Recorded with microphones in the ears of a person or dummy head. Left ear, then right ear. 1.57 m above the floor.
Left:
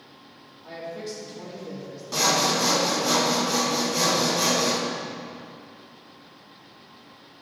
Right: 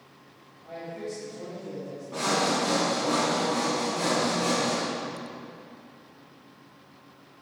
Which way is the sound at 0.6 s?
65° left (ahead or behind).